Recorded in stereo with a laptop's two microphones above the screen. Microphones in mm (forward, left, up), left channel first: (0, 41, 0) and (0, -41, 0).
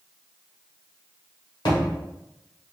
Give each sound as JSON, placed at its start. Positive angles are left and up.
{"t": 1.6, "sound": "a thud", "side_deg": 65, "distance_m": 1.1}